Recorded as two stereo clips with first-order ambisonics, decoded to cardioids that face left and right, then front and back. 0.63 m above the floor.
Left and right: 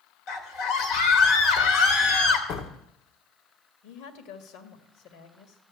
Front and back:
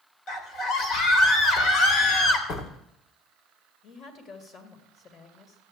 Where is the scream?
45° left, 3 m.